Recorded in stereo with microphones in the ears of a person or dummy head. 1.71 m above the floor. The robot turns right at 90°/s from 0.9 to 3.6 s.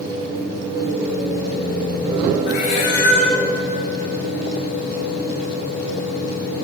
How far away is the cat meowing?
About 2.5 m.